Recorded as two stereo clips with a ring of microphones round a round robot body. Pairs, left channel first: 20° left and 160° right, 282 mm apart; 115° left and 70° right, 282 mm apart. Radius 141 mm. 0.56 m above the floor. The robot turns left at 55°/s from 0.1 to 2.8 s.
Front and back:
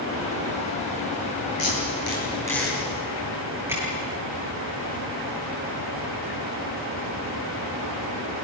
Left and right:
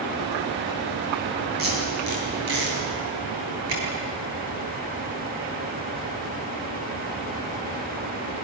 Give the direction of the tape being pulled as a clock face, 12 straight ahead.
12 o'clock.